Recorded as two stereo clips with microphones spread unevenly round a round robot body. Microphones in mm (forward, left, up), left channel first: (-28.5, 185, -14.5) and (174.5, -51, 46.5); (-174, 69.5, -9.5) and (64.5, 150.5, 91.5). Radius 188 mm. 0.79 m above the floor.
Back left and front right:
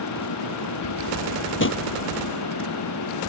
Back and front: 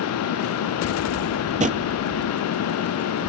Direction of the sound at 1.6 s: 80° left.